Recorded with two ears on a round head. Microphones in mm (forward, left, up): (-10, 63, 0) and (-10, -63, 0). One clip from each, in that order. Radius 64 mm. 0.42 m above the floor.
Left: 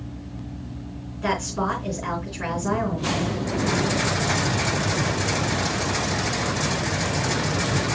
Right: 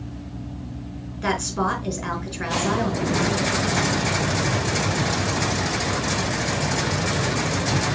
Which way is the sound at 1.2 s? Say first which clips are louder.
Right 1 dB; 30° right (ahead or behind).